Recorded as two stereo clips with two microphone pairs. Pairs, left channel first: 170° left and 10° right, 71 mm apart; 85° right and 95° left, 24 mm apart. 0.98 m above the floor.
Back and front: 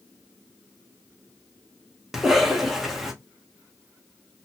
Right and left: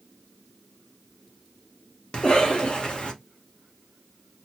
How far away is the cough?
About 0.9 m.